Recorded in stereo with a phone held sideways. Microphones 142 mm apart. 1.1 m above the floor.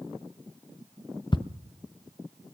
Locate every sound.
1.3 s ticking: 35° left (ahead or behind), 0.5 m